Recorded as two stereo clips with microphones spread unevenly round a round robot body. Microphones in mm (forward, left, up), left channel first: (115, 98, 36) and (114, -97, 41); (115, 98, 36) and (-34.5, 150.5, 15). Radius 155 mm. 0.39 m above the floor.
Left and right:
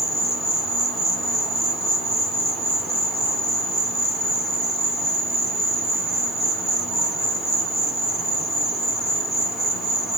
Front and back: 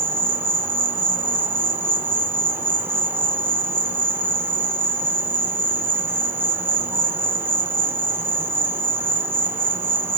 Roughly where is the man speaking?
I don't hear a man speaking.